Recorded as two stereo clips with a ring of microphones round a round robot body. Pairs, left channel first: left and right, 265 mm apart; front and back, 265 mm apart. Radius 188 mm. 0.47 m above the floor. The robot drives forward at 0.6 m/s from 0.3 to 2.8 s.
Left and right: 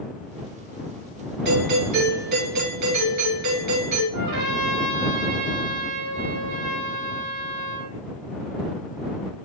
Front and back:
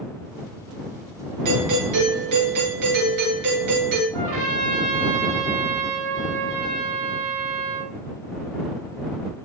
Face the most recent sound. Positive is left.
turn(degrees=-155)